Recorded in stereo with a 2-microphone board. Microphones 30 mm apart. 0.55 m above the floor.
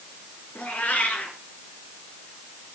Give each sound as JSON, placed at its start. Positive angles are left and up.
{"t": 0.6, "sound": "a cat meowing", "side_deg": 50, "distance_m": 3.5}